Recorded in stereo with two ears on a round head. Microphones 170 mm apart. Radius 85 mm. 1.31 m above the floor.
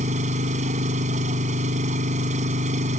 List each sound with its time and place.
0.0 s an engine running: 40° right (ahead or behind)